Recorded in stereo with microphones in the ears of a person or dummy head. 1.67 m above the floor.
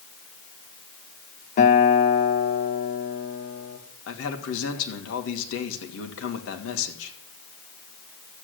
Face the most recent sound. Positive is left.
turn(degrees=80)